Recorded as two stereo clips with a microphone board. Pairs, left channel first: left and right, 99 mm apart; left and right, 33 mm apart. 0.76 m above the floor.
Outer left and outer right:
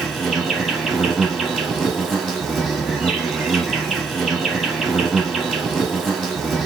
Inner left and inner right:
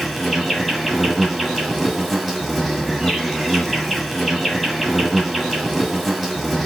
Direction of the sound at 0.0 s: 5° left (ahead or behind).